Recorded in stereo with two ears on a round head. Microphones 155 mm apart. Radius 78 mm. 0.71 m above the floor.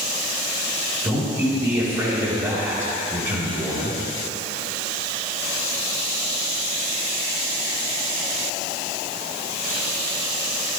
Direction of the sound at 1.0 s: 25° right (ahead or behind).